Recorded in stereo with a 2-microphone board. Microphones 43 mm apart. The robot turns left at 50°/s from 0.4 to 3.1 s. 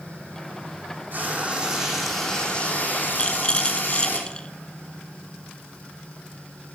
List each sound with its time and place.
1.1 s frying: 135° right, 5 m; by 4.2 s 125° left, 5 m
3.2 s a rattle: 25° left (ahead or behind), 0.6 m